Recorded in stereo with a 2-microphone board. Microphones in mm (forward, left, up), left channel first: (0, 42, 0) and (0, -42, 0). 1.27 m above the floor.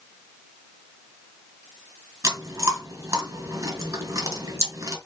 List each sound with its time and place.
2.2 s chewing: 40° right (ahead or behind), 4 m